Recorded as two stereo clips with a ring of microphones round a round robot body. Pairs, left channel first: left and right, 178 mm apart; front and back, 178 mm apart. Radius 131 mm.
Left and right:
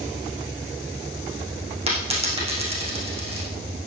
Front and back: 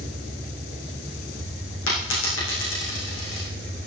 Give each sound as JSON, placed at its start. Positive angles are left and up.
{"t": 1.9, "sound": "a dropped coin", "azimuth_deg": -35, "distance_m": 5.5}